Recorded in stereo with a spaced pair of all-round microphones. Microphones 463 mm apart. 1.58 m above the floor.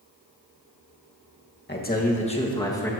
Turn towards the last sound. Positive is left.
turn(degrees=5)  # may be behind; listen again after turning